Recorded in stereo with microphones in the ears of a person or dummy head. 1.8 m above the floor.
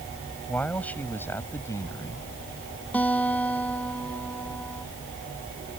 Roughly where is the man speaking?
Centre.